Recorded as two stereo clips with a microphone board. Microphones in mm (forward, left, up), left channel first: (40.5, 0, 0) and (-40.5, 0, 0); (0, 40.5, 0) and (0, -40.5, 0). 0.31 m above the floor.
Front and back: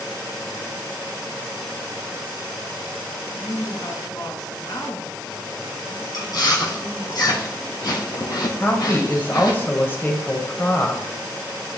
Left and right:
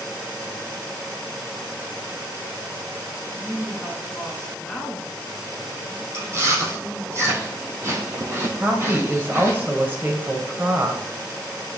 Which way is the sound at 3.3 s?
10° left.